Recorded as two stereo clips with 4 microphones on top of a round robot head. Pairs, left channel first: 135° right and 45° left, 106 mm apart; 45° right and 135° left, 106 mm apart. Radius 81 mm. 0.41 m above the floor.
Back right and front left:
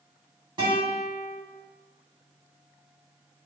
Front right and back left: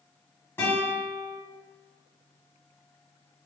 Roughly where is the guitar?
Ahead.